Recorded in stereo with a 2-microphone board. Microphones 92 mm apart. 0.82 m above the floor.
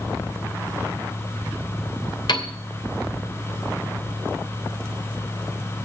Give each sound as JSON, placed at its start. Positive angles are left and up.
{"t": 2.3, "sound": "a piano", "side_deg": 55, "distance_m": 2.5}